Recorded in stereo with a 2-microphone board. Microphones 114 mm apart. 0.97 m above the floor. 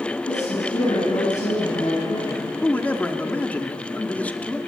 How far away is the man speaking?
About 2 m.